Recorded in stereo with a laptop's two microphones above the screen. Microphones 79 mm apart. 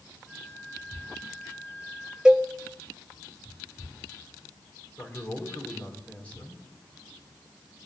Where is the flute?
30° left (ahead or behind), 3 m.